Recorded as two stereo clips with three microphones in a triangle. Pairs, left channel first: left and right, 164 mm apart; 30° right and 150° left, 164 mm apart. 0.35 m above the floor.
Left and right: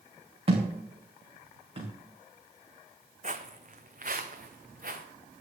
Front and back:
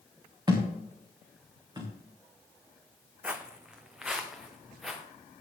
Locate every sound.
0.5 s a thud: 145° right, 3.5 m
3.2 s footsteps: 125° right, 1.0 m; by 5.0 s 120° right, 2 m